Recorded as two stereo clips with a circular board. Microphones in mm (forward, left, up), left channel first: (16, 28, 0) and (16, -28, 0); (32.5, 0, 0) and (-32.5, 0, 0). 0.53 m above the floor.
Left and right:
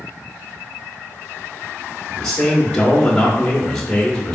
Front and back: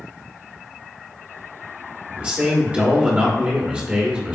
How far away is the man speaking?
About 1.3 m.